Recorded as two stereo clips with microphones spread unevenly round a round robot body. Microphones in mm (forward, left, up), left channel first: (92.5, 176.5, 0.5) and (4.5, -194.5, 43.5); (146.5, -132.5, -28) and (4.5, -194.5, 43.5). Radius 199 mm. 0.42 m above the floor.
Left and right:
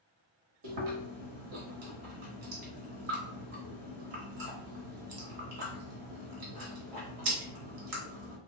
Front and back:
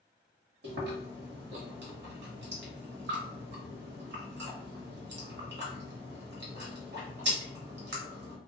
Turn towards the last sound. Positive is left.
turn(degrees=-145)